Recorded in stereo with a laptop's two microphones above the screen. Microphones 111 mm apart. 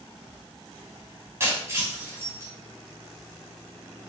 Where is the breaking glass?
25° right (ahead or behind), 4.5 m.